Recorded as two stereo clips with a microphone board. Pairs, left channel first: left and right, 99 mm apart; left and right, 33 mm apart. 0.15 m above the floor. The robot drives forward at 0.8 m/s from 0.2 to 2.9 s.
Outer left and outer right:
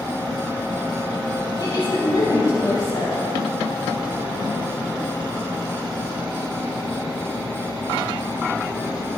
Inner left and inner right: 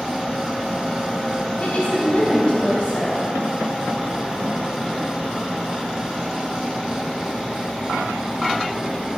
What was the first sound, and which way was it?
A woman speaking, 50° left (ahead or behind).